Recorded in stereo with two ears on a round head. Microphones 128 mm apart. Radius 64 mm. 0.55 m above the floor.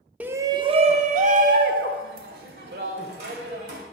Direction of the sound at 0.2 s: 10° right (ahead or behind).